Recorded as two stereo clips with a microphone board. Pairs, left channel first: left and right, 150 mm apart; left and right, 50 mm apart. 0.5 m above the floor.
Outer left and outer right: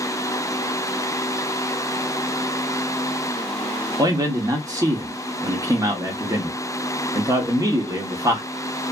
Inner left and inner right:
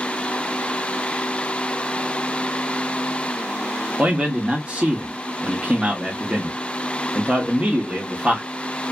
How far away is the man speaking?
About 0.7 m.